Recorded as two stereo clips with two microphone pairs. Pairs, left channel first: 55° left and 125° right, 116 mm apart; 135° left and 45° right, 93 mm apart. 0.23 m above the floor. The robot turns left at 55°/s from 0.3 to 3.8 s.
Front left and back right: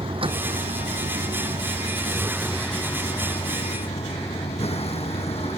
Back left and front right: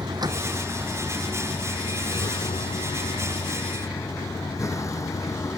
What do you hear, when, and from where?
0.0 s a vehicle: 85° right; by 5.6 s 80° left